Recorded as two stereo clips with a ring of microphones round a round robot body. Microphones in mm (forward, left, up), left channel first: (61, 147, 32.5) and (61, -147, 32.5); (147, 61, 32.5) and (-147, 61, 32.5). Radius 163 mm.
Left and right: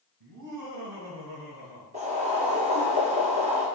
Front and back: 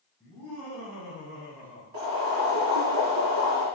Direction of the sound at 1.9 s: 160° right.